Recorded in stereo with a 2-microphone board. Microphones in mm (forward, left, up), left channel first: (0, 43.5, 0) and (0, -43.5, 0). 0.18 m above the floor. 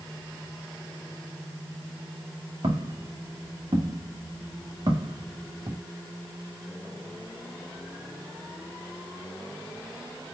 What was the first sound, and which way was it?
Footsteps, 85° right.